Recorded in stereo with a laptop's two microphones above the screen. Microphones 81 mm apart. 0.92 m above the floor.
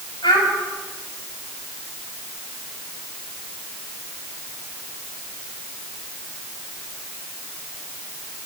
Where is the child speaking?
65° left (ahead or behind), 5 m.